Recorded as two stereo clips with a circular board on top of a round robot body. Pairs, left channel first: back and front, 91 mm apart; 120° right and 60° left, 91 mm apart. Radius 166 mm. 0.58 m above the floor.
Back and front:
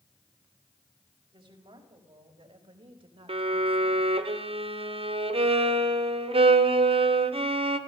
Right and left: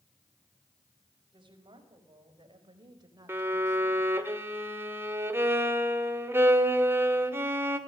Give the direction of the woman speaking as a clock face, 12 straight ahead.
11 o'clock.